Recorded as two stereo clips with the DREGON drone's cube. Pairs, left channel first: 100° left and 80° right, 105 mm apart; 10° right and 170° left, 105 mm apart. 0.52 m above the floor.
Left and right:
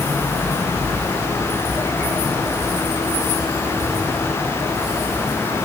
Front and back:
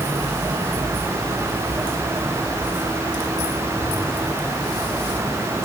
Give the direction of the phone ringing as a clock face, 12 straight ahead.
I don't hear a phone ringing.